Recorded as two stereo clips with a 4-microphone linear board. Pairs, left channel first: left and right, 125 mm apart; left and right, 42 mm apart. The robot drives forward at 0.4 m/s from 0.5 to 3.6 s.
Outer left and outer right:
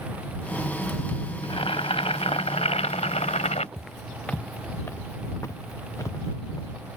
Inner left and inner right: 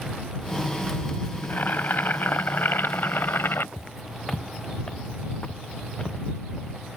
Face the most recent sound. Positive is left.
turn(degrees=30)  # may be behind; listen again after turning